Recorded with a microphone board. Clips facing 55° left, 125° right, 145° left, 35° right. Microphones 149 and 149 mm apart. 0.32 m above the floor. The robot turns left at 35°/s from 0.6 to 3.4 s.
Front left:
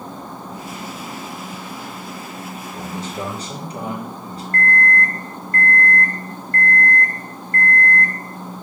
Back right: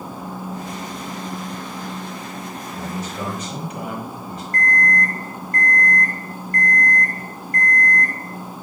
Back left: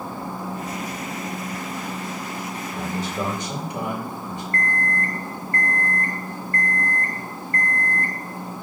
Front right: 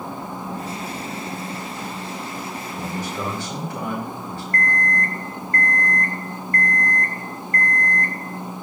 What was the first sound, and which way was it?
A man speaking, 110° left.